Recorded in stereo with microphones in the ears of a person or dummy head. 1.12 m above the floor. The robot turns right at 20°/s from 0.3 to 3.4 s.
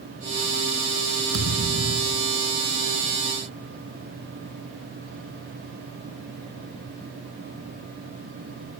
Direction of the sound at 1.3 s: 80° right.